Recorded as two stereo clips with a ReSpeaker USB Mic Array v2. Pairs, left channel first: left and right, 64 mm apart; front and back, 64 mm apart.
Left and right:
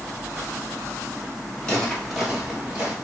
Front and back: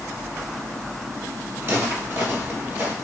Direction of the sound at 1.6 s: 160° left.